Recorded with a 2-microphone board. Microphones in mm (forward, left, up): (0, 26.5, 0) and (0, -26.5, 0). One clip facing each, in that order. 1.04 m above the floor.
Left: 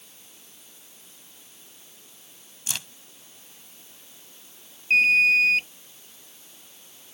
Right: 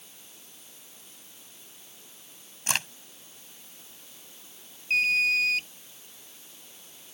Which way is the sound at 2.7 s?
50° right (ahead or behind).